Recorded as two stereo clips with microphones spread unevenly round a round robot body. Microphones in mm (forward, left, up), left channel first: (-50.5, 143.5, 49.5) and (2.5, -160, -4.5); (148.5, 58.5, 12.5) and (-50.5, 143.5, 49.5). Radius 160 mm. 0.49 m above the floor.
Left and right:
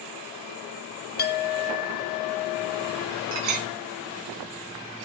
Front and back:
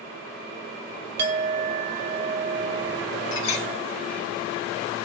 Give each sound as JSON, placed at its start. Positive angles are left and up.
{"t": 1.2, "sound": "a clink", "azimuth_deg": 160, "distance_m": 0.7}
{"t": 3.3, "sound": "a clink", "azimuth_deg": -50, "distance_m": 1.1}